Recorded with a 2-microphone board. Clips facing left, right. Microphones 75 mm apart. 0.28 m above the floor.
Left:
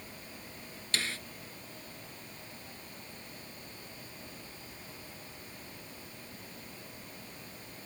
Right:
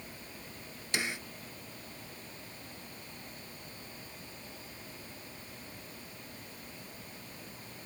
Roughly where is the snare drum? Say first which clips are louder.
Right 1 dB; centre.